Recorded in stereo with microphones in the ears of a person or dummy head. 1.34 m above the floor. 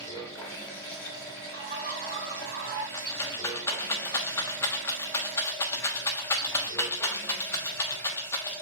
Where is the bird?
50° right (ahead or behind), 3 m.